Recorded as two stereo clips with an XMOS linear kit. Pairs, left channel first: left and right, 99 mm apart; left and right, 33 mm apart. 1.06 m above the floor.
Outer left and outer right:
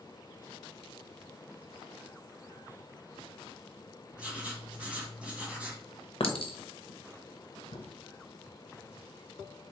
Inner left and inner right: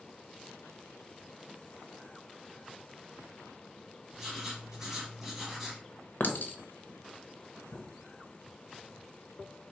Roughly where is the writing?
Centre.